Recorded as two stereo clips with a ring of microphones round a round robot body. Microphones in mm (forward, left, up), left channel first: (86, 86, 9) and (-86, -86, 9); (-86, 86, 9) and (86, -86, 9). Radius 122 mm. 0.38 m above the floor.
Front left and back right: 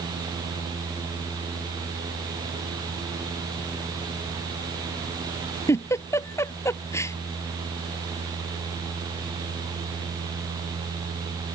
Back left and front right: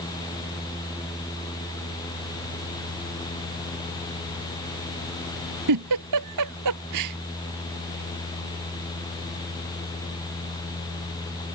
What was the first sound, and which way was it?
A giggle, 35° right.